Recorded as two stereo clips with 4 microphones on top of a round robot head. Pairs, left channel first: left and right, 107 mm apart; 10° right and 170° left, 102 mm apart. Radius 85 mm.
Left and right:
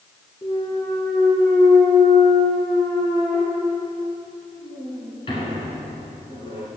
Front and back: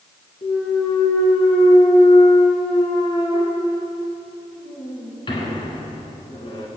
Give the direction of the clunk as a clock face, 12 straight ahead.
11 o'clock.